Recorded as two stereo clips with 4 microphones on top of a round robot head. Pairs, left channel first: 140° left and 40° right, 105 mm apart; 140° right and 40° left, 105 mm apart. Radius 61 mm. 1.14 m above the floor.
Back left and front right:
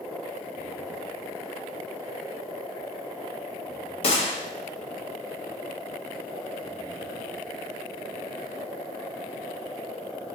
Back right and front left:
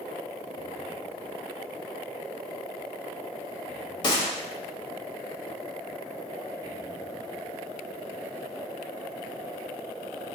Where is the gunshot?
170° left, 1.4 m.